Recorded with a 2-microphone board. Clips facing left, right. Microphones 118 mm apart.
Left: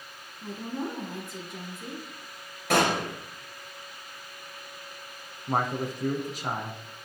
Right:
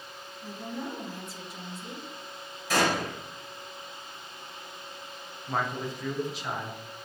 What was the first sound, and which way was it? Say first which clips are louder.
A woman speaking: left 3 dB; 50° left (ahead or behind).